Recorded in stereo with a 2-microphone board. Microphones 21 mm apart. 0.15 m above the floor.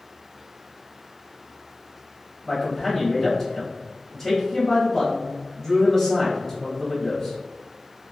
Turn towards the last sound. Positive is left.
turn(degrees=25)  # may be behind; listen again after turning